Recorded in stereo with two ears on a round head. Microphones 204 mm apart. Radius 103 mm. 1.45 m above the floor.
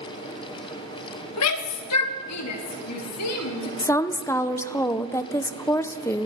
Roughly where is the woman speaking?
Centre.